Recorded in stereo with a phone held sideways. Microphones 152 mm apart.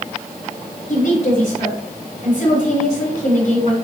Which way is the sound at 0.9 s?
65° left (ahead or behind).